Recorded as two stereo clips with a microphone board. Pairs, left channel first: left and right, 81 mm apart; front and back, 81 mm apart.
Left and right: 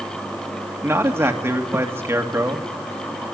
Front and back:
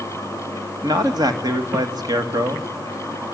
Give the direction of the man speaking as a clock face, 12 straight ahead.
5 o'clock.